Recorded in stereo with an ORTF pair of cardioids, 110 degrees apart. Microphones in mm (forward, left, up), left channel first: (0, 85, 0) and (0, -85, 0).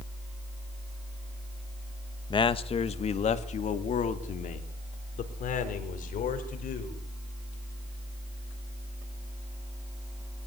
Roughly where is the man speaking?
Ahead left.